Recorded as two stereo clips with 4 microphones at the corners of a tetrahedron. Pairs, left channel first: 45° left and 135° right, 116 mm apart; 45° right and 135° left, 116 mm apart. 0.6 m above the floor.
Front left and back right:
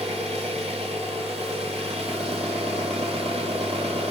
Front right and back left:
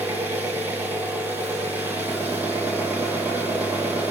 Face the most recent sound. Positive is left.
turn(degrees=-150)